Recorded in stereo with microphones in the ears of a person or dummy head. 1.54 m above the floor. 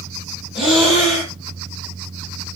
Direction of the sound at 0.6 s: 5° right (ahead or behind).